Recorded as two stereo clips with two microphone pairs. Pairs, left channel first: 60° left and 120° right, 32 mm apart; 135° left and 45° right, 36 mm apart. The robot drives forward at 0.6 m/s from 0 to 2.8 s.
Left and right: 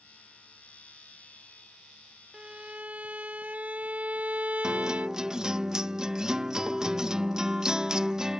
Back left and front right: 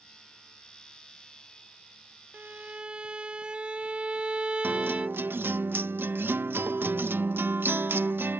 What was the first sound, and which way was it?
A violin, 70° right.